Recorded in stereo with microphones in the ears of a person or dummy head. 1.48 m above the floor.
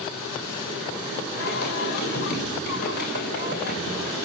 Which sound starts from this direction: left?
Singing, at 1.4 s.